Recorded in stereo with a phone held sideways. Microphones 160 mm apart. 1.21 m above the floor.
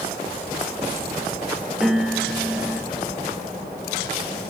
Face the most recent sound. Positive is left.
turn(degrees=-5)  # may be behind; listen again after turning